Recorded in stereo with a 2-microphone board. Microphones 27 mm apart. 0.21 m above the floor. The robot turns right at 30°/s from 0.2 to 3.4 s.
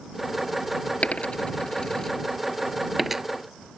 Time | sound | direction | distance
1.0 | a dropped coin | 50° left (ahead or behind) | ?